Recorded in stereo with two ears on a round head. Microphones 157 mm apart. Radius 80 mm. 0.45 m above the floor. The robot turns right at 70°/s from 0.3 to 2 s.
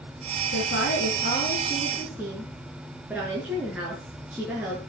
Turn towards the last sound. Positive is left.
turn(degrees=-170)